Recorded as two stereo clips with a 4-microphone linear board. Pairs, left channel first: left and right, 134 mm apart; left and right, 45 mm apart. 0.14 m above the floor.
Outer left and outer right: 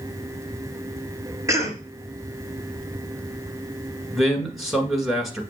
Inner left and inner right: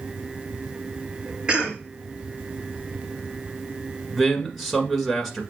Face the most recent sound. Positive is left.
turn(degrees=0)  # may be behind; listen again after turning